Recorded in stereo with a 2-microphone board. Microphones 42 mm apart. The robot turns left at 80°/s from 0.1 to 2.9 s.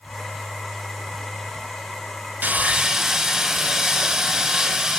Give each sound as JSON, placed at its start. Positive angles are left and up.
{"t": 2.4, "sound": "sawing", "azimuth_deg": -125, "distance_m": 1.5}